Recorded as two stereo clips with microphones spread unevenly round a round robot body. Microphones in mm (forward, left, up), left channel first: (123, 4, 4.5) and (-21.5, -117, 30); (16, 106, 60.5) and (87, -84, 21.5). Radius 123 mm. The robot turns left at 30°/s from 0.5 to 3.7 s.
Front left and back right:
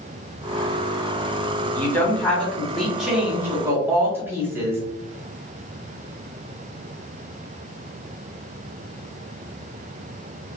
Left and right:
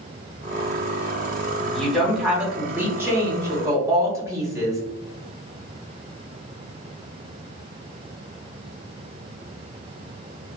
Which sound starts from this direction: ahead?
A woman speaking, at 1.6 s.